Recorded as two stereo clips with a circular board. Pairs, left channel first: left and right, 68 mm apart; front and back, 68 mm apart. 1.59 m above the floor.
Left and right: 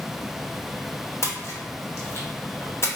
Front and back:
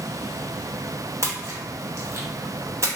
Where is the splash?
140° left, 0.8 m.